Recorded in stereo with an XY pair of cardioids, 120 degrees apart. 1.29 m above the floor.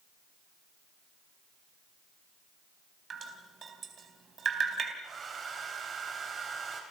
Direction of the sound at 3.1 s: 40° right.